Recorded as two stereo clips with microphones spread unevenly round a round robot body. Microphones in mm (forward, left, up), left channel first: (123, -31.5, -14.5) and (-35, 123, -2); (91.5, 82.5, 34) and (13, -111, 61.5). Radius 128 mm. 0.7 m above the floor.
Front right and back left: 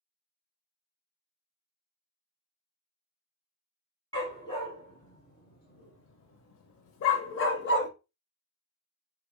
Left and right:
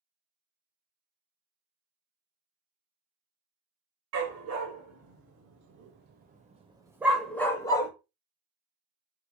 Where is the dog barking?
120° right, 1.5 m; by 7.9 s 5° right, 0.9 m.